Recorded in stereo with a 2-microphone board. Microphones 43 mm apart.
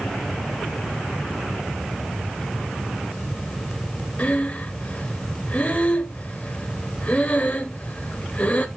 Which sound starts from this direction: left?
Breathing, at 4.2 s.